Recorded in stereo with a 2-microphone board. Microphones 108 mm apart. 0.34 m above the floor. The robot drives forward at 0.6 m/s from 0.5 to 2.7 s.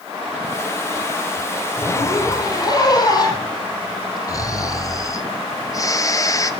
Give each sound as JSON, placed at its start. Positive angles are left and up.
{"t": 1.8, "sound": "a zipper", "side_deg": 35, "distance_m": 7.0}
{"t": 4.3, "sound": "snoring", "side_deg": 30, "distance_m": 1.7}